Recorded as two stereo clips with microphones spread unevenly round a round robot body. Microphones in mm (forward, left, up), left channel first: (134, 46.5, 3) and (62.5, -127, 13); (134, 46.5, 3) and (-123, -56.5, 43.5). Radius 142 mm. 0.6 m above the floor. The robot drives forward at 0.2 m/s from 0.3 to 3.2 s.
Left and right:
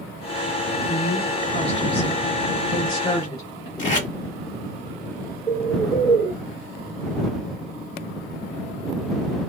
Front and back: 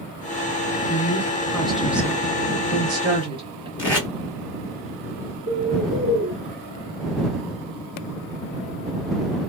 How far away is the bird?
About 1.8 m.